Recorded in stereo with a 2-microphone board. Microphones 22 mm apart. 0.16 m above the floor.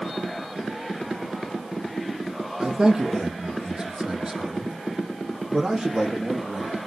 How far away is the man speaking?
About 5 m.